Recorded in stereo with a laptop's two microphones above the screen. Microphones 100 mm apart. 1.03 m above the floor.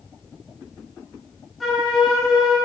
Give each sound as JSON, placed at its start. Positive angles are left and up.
{"t": 1.6, "sound": "a flute", "side_deg": 0, "distance_m": 1.7}